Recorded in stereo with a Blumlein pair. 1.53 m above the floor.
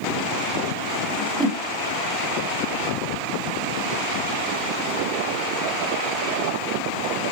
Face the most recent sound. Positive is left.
turn(degrees=-10)